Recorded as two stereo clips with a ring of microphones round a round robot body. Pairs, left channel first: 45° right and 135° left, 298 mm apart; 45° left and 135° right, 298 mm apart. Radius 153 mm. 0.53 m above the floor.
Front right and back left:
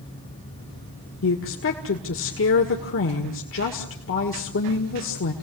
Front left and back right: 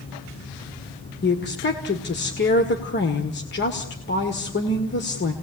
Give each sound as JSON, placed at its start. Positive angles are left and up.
{"t": 1.2, "sound": "a woman speaking", "azimuth_deg": -5, "distance_m": 1.7}